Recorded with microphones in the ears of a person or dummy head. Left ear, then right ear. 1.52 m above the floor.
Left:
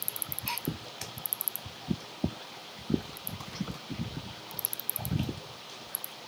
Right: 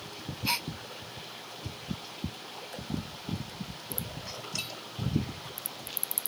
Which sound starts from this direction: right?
A gasp, at 0.5 s.